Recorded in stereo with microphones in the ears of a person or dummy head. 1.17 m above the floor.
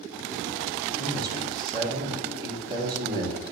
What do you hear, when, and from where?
1.0 s a man speaking: 25° right (ahead or behind), 3.5 m